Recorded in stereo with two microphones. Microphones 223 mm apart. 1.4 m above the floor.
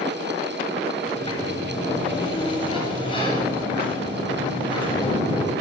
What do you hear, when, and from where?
1.1 s a sliding door: 25° left (ahead or behind), 7 m